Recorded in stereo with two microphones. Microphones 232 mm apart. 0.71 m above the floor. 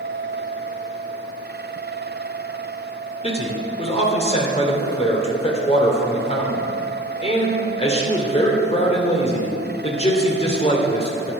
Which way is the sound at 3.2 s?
25° left (ahead or behind).